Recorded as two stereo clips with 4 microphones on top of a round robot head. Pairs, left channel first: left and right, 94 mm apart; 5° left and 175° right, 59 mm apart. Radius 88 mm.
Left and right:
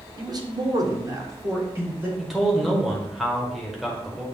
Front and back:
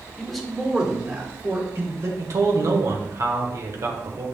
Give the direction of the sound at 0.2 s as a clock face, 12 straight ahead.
3 o'clock.